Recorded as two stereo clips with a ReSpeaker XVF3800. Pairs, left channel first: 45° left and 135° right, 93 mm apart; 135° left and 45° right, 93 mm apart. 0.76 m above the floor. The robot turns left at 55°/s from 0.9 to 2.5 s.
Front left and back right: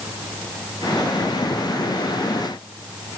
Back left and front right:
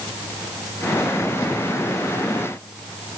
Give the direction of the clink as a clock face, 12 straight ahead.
No clink in this recording.